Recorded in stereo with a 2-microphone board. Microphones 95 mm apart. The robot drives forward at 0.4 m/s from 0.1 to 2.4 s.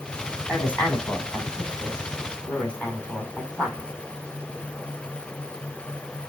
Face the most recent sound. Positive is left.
turn(degrees=10)  # may be behind; listen again after turning